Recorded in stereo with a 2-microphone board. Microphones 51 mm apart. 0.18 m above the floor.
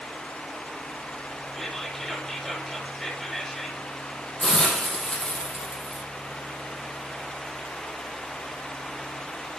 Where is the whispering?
5° left (ahead or behind), 5.5 m.